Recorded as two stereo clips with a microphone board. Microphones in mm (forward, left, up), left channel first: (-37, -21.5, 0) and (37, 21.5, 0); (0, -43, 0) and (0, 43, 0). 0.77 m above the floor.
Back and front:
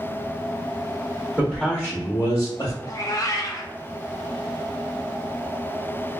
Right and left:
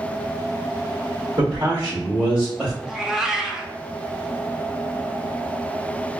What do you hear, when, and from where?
1.4 s a man speaking: 130° left, 1.8 m; by 2.7 s straight behind, 1.5 m
2.8 s a cat meowing: 175° left, 0.5 m